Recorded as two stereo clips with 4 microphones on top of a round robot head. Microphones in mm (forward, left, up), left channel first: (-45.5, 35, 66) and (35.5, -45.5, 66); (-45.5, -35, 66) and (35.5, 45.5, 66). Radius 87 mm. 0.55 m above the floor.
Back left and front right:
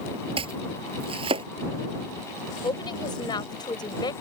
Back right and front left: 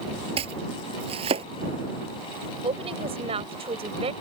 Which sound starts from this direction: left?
A woman speaking, at 2.6 s.